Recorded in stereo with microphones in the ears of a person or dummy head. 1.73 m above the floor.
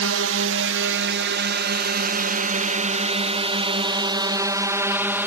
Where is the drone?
70° right (ahead or behind); by 5.3 s 10° right (ahead or behind).